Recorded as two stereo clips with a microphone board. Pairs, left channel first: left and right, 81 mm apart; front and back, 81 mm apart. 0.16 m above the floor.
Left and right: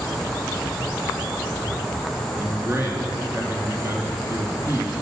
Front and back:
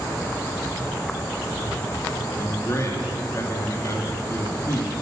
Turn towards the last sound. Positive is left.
turn(degrees=-40)